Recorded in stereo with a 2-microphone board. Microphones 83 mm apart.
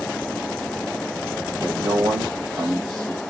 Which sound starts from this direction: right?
A man speaking, at 1.6 s.